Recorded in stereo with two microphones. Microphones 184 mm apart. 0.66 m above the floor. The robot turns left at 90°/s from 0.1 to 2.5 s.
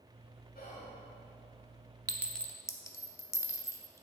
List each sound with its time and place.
0.6 s whispering: 60° left, 2 m; by 0.9 s 30° left, 2 m
2.1 s a clink: 20° right (ahead or behind), 0.6 m; by 4.0 s 15° left (ahead or behind), 0.6 m